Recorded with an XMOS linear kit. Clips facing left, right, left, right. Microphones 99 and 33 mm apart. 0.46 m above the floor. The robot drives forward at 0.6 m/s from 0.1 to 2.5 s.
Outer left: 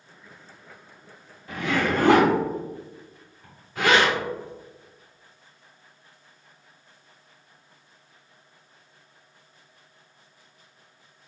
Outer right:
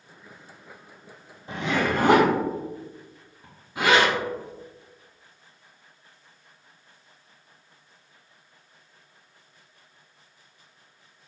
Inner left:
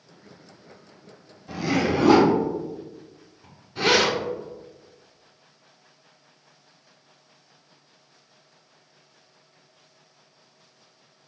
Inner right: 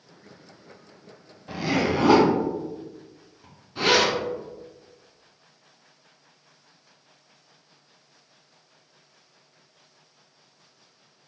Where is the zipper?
25° right (ahead or behind), 0.6 m; by 4.2 s 15° right (ahead or behind), 1.1 m.